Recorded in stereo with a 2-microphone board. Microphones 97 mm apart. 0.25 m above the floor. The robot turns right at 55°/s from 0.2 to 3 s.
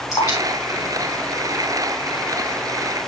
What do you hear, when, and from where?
0.1 s dripping: 30° left (ahead or behind), 4.5 m; by 2.1 s 40° left (ahead or behind), 4.5 m